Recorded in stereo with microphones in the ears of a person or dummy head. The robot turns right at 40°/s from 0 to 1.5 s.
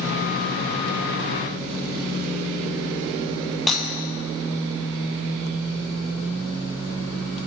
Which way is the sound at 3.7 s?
5° right (ahead or behind).